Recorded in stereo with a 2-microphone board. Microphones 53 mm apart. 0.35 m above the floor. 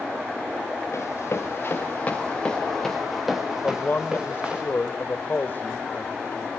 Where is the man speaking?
40° left (ahead or behind), 1.0 m.